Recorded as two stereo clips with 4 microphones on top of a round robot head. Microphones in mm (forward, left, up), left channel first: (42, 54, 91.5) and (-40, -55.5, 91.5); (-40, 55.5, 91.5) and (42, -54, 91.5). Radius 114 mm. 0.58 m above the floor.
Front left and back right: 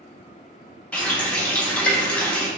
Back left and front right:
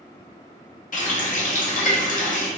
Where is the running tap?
135° left, 0.9 m.